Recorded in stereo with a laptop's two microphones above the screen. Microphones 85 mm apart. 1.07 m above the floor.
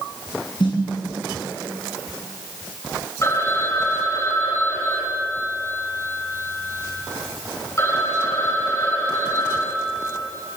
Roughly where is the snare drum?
Left.